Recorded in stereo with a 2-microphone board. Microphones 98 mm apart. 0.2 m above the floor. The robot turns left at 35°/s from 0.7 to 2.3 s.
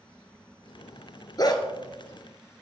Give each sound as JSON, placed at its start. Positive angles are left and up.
{"t": 1.4, "sound": "a dog barking", "side_deg": 40, "distance_m": 1.1}